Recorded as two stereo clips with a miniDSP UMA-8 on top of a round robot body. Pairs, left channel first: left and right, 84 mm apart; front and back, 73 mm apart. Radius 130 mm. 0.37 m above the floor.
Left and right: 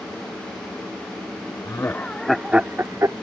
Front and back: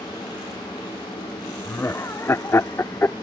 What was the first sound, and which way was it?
Laughter, 50° left.